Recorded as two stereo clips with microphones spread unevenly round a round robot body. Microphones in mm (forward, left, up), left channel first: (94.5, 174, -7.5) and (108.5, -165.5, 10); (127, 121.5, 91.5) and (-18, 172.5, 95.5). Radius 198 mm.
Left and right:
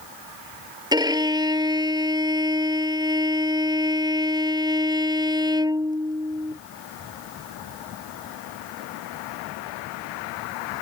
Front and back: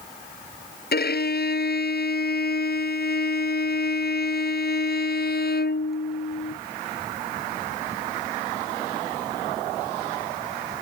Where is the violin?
10° right.